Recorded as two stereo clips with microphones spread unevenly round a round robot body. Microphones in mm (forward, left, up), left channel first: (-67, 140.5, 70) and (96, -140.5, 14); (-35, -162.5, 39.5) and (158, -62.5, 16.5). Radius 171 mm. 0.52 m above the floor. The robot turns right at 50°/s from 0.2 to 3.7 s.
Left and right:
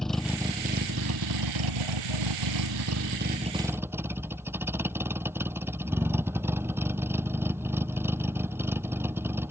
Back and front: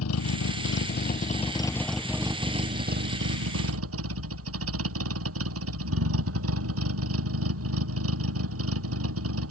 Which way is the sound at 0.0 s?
150° right.